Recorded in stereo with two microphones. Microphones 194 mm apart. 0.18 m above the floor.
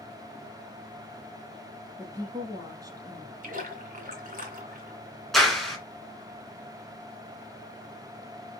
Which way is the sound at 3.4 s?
40° right (ahead or behind).